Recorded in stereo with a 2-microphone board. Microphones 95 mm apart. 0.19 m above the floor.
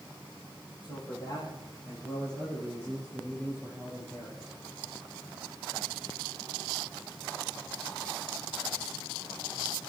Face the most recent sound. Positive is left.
turn(degrees=0)  # may be behind; listen again after turning